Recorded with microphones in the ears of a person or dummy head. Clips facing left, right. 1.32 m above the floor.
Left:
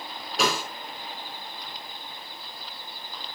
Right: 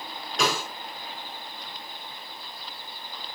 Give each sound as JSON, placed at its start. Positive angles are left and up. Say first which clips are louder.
{"t": 0.4, "sound": "a snare drum", "louder": "left 1 dB", "side_deg": 5, "distance_m": 4.5}